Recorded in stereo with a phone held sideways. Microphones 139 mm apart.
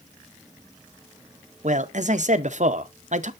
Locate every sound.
1.6 s a man speaking: 60° right (ahead or behind), 0.6 m